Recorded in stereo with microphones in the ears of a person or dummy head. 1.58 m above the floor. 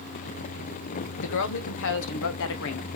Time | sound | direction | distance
1.2 | a woman speaking | 65° left (ahead or behind) | 1.3 m